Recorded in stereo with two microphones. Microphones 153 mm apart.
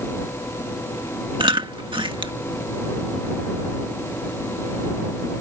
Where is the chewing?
35° right (ahead or behind).